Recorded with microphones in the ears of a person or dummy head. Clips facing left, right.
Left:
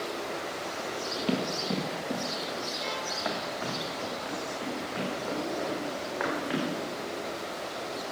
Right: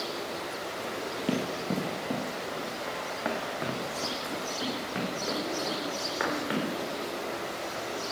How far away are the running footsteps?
About 1.4 m.